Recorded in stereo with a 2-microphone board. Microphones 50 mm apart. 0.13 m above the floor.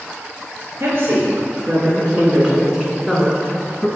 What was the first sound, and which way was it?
A woman speaking, 50° right (ahead or behind).